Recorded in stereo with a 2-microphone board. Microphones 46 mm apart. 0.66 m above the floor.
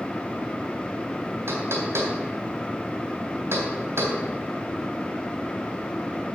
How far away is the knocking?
About 3 m.